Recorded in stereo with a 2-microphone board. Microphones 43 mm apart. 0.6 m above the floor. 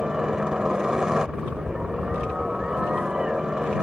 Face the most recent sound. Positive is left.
turn(degrees=-15)  # may be behind; listen again after turning